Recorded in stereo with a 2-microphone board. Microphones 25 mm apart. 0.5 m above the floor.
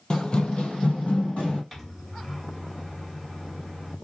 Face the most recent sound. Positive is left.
turn(degrees=10)  # may be behind; listen again after turning